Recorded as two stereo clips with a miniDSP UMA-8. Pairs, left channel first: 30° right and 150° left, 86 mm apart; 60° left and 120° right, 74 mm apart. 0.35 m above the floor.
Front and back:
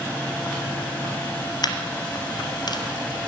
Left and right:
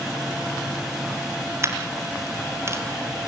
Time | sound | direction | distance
1.6 | a dropped coin | 70° right | 2.5 m